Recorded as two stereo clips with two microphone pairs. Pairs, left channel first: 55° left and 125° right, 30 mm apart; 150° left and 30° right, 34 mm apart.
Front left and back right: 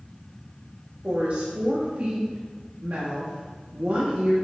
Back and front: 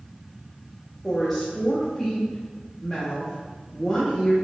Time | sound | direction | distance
1.0 | a woman speaking | 125° right | 1.3 m